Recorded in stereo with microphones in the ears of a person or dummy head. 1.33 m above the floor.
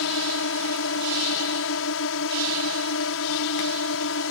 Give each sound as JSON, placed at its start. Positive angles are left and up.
{"t": 0.0, "sound": "a drone", "side_deg": 70}